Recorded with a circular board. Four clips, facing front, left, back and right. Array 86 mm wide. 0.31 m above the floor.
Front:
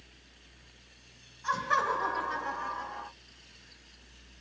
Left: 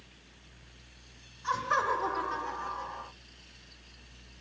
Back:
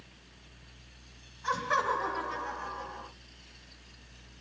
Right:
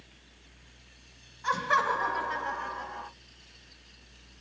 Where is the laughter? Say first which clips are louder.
Right 2 dB, front 1 dB; 100° right, 1.9 m; by 3.1 s 50° right, 1.6 m.